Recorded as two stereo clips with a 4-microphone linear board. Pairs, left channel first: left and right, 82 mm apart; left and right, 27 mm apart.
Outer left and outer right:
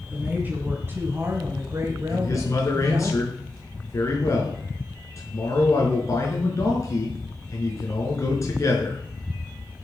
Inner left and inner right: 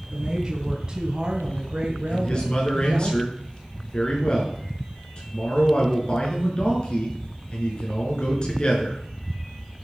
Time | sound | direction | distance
0.1 | a woman speaking | 20° right (ahead or behind) | 4 m
2.1 | a man speaking | 40° left (ahead or behind) | 5.5 m